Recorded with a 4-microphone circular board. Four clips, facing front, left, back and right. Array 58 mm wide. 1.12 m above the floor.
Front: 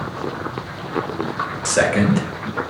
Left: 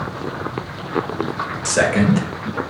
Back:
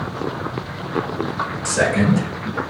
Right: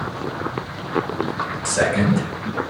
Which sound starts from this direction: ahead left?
A man speaking, at 1.6 s.